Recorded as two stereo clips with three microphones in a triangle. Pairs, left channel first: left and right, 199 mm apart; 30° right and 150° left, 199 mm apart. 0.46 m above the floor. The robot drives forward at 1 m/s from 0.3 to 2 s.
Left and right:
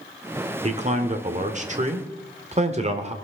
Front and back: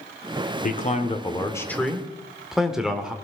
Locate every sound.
0.6 s a man speaking: 45° right, 1.6 m; by 3.1 s 125° right, 1.5 m